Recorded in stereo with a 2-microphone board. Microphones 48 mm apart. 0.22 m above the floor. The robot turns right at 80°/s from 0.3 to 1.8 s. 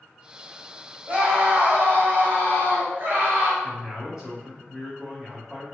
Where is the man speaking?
10° right (ahead or behind), 1.5 m.